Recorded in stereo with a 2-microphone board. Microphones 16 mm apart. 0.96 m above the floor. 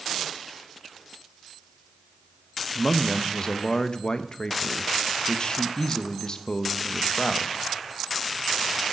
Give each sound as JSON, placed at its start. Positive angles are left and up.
{"t": 2.8, "sound": "a man speaking", "side_deg": 45, "distance_m": 0.6}